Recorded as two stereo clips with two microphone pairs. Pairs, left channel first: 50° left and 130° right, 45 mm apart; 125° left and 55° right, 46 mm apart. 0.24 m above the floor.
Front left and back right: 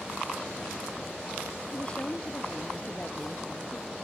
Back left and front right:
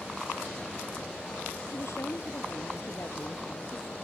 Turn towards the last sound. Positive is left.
turn(degrees=115)